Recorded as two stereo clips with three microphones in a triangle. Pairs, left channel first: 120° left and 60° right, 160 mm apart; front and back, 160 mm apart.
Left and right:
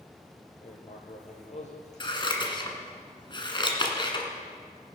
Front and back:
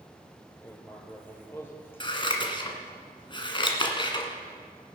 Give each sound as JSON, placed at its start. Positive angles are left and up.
{"t": 0.6, "sound": "writing", "azimuth_deg": 75, "distance_m": 2.0}
{"t": 2.0, "sound": "scissors", "azimuth_deg": 60, "distance_m": 1.5}